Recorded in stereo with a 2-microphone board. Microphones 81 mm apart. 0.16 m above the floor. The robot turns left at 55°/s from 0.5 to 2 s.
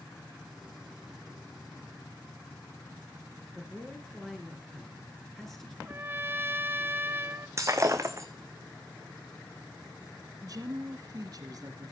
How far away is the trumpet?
About 0.5 m.